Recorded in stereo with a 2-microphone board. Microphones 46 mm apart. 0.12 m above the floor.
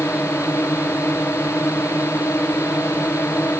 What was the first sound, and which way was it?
A drone, 75° left (ahead or behind).